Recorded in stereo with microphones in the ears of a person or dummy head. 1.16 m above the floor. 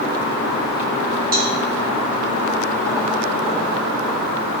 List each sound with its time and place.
1.3 s a cowbell: 40° right (ahead or behind), 1.1 m